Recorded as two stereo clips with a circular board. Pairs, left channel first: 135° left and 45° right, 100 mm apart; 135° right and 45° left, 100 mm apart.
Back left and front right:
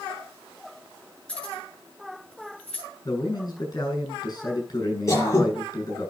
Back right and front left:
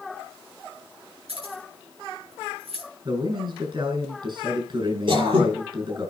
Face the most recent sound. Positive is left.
turn(degrees=75)